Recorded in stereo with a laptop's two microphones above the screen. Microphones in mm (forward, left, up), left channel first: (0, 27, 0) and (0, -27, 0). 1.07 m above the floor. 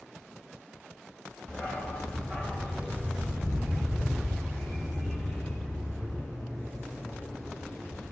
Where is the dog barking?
25° left (ahead or behind), 1.9 m; by 8.0 s 10° right (ahead or behind), 8 m.